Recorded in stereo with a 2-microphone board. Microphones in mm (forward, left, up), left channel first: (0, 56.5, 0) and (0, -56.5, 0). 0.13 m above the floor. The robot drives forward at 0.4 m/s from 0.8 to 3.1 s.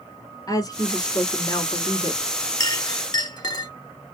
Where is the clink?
30° left (ahead or behind), 1.0 m; by 3.7 s 35° left (ahead or behind), 0.9 m.